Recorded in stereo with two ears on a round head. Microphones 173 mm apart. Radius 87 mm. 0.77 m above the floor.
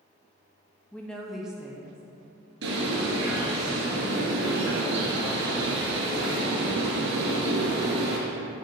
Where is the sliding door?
I don't hear a sliding door.